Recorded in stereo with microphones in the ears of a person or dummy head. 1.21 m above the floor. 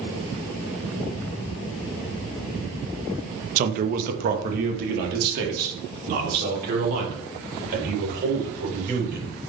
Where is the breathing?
I don't hear breathing.